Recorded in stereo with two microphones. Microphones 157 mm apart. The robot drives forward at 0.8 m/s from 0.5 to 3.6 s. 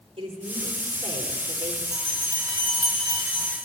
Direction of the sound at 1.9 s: 25° right (ahead or behind).